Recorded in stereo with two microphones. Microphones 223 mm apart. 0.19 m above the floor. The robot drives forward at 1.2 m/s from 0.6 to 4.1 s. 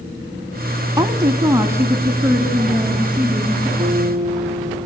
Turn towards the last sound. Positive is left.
turn(degrees=-40)  # may be behind; listen again after turning